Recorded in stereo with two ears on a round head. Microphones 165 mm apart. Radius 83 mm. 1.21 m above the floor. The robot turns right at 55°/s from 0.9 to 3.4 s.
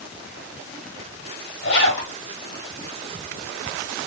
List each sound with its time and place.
1.6 s a zipper: 60° left (ahead or behind), 1.6 m